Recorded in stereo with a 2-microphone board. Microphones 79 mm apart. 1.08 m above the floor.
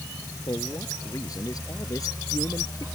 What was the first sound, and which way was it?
A man speaking, 50° left (ahead or behind).